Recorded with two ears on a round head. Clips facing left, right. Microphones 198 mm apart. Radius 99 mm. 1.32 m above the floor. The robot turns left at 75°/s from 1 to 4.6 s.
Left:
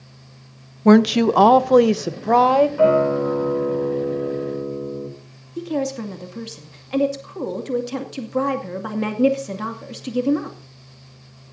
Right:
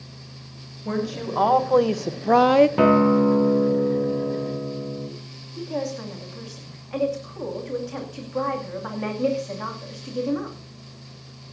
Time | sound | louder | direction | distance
0.8 | a woman speaking | left 14 dB | 95° left | 0.8 m
2.8 | a guitar | even | 85° right | 2.5 m
5.6 | a woman speaking | left 5 dB | 50° left (ahead or behind) | 2.5 m